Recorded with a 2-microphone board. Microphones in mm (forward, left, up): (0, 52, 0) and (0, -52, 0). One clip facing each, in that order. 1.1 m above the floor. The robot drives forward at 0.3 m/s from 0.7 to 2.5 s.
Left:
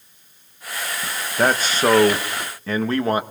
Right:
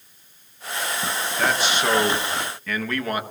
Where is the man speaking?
40° left (ahead or behind), 0.7 m; by 3.2 s 25° left (ahead or behind), 0.9 m.